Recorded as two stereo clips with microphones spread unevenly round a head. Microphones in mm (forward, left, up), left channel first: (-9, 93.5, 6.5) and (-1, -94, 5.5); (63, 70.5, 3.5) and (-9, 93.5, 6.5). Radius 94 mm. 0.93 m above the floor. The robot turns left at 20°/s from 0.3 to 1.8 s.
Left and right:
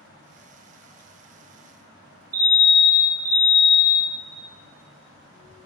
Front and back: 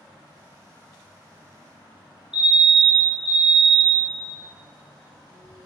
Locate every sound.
2.3 s a fire alarm: 135° right, 1.3 m